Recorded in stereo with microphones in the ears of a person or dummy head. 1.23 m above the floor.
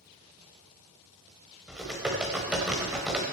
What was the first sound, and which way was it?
Typing on a keyboard, 5° right (ahead or behind).